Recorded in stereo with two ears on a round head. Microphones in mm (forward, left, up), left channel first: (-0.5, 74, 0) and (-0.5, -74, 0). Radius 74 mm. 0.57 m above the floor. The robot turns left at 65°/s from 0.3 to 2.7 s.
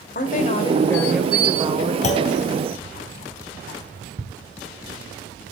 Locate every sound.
0.1 s a woman speaking: 55° left, 2.5 m; by 1.9 s 50° right, 2.5 m
2.0 s a clunk: 45° left (ahead or behind), 2.5 m; by 2.3 s 25° left (ahead or behind), 2.5 m
4.2 s ticking: 55° right (ahead or behind), 1.8 m